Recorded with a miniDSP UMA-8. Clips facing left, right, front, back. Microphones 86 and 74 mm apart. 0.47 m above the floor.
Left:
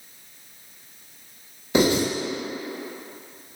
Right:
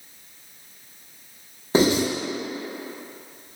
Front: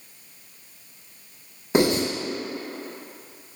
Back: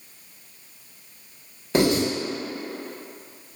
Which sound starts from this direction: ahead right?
Writing, at 1.7 s.